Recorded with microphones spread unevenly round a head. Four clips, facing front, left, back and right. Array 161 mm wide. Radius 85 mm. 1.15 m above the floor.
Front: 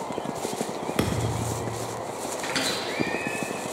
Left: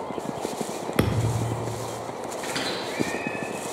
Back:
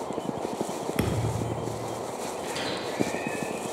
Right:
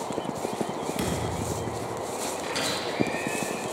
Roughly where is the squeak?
Ahead left.